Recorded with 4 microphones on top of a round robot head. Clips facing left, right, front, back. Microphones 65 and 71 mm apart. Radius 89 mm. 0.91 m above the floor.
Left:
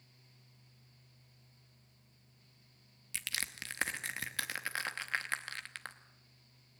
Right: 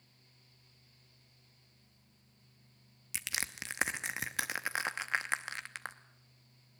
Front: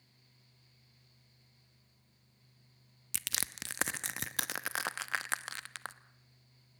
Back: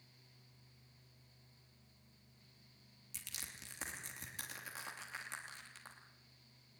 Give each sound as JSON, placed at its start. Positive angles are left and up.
{"t": 3.1, "sound": "crushing", "azimuth_deg": -15, "distance_m": 0.7}